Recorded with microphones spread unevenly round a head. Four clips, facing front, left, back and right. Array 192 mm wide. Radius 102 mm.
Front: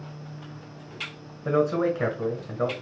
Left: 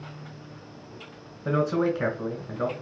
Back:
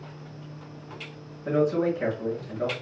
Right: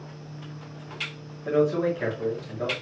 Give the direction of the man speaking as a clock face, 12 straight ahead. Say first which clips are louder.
Right 2 dB, front 1 dB; 11 o'clock.